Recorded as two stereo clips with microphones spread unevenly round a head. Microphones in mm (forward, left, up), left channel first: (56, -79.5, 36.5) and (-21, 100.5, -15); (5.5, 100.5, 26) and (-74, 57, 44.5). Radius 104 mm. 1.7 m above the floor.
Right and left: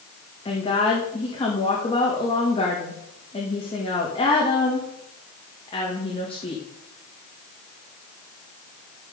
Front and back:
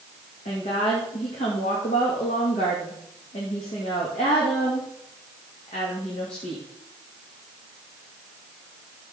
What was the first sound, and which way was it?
A woman speaking, 5° right.